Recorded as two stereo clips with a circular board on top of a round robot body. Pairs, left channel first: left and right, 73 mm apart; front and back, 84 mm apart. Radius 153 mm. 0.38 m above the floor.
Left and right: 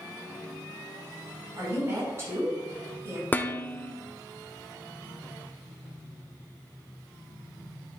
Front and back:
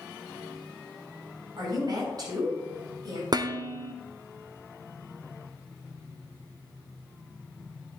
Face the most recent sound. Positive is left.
turn(degrees=150)